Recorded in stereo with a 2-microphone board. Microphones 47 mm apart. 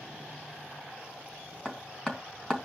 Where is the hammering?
15° left (ahead or behind), 3 m.